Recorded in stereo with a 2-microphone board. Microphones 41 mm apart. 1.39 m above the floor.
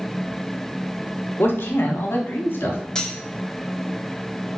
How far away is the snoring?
No snoring in this recording.